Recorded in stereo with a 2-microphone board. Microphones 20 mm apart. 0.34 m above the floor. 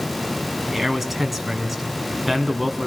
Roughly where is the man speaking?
Centre.